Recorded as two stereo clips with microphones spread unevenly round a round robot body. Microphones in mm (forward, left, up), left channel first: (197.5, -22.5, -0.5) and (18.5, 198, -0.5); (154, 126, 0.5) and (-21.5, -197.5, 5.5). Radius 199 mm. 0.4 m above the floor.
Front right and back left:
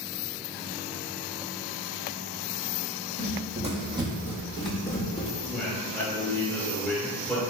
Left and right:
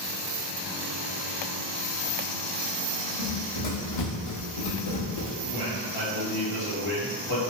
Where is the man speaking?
45° left, 1.9 m.